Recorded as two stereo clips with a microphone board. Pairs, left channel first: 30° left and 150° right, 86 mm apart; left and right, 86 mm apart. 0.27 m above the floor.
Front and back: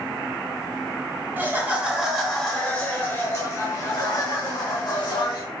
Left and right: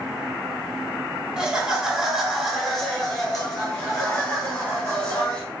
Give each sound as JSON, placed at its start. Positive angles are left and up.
{"t": 1.4, "sound": "laughter", "azimuth_deg": -150, "distance_m": 1.2}